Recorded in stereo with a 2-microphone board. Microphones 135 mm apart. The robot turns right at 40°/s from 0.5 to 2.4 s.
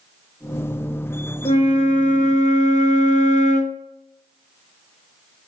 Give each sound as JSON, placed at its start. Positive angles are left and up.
{"t": 1.4, "sound": "a flute", "azimuth_deg": 55, "distance_m": 0.9}